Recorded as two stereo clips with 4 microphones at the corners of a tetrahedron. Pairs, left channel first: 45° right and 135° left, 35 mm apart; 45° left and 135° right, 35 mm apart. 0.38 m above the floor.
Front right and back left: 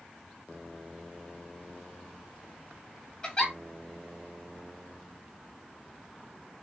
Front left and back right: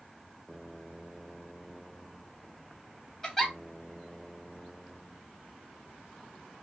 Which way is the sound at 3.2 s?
25° right.